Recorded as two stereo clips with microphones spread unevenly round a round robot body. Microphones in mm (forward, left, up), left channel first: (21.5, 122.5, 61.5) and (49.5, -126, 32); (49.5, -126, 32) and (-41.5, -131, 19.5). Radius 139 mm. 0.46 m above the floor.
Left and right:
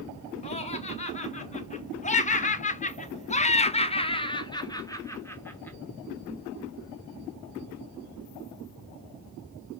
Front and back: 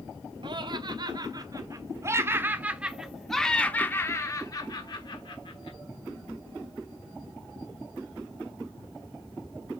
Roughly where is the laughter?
Behind.